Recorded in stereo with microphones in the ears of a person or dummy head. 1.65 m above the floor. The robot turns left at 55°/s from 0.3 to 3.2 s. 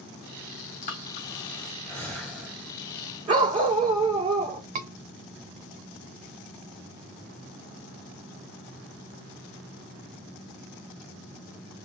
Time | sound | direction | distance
0.8 | breathing | 45° left (ahead or behind) | 2 m
3.3 | a dog barking | 25° right (ahead or behind) | 2.5 m
4.8 | a scream | 40° right (ahead or behind) | 1.0 m